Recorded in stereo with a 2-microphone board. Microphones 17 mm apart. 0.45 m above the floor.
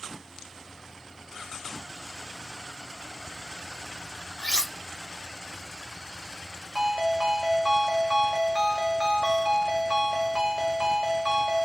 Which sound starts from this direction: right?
A ringtone, at 6.8 s.